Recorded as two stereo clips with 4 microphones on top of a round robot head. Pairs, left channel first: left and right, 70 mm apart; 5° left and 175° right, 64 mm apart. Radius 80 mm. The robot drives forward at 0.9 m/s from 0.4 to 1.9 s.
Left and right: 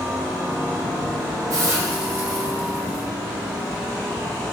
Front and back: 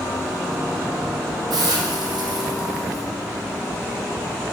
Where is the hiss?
140° right, 0.8 m; by 3.0 s 155° right, 1.1 m.